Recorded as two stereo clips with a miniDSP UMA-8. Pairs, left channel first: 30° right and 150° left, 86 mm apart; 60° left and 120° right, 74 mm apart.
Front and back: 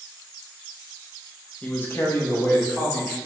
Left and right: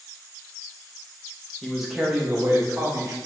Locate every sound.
1.6 s a man speaking: 5° right, 0.5 m; by 3.1 s 85° right, 1.0 m